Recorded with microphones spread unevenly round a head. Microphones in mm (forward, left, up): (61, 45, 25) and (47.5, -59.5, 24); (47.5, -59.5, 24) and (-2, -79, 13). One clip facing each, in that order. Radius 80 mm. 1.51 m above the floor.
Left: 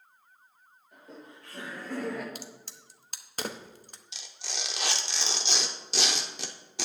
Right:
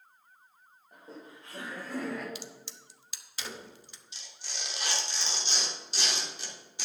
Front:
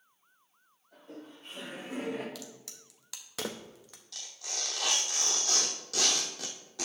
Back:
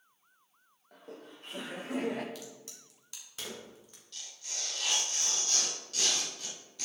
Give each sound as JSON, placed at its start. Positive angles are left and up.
{"t": 0.9, "sound": "laughter", "azimuth_deg": -165, "distance_m": 3.0}
{"t": 2.4, "sound": "a crack", "azimuth_deg": 40, "distance_m": 0.8}
{"t": 4.1, "sound": "tearing paper", "azimuth_deg": 75, "distance_m": 0.9}